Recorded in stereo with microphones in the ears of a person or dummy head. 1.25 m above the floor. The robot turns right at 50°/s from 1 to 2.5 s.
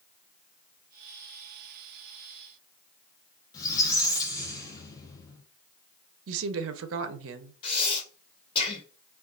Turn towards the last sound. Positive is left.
turn(degrees=30)  # may be behind; listen again after turning